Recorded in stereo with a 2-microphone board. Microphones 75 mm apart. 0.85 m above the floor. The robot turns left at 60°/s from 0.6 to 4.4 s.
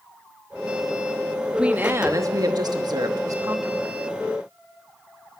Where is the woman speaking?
15° right, 1.2 m; by 4.0 s 155° right, 1.2 m.